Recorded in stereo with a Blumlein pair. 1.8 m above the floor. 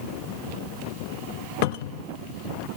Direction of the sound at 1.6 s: 50° left.